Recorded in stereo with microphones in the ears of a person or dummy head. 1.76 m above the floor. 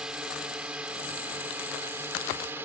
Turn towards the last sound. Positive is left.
turn(degrees=-10)  # may be behind; listen again after turning